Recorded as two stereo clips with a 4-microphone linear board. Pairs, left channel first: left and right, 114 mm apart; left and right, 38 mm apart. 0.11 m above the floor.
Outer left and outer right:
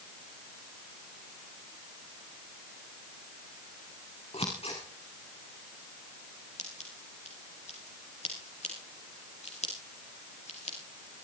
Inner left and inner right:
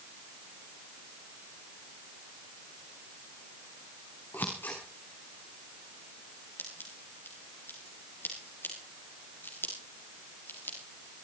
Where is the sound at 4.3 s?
60° left (ahead or behind), 5 m.